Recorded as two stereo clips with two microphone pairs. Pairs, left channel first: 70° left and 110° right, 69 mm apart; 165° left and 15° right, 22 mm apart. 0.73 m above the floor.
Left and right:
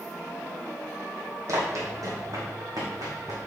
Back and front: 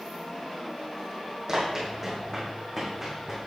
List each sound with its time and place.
1.5 s running footsteps: 80° right, 2 m; by 3.4 s 95° right, 3 m